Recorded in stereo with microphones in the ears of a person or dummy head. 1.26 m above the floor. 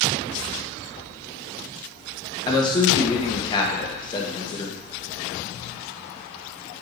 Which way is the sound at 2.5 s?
25° left (ahead or behind).